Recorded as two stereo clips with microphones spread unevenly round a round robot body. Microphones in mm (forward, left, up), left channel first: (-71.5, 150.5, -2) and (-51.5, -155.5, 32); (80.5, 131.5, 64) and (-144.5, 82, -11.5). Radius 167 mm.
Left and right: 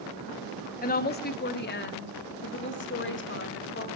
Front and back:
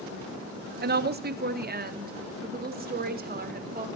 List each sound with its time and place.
0.8 s a woman speaking: 155° left, 1.3 m; by 3.9 s 145° left, 3.5 m